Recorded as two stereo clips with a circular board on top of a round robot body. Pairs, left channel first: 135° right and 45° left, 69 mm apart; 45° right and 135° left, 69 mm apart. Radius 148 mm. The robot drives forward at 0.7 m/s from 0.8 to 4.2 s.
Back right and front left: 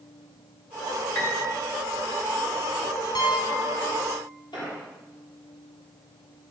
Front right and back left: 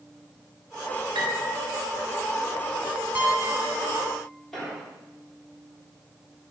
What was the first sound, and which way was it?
A piano, 165° left.